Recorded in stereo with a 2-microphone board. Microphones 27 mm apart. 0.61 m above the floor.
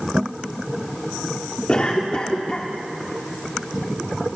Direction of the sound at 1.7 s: 35° left (ahead or behind).